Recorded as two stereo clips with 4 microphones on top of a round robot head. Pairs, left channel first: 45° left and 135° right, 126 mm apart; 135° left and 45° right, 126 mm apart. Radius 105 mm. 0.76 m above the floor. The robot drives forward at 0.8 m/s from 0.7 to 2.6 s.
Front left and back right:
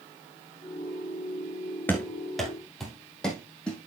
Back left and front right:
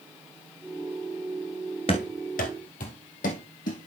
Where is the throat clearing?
I don't hear throat clearing.